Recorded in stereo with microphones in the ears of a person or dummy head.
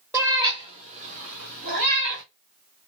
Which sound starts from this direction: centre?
A cat meowing, at 0.1 s.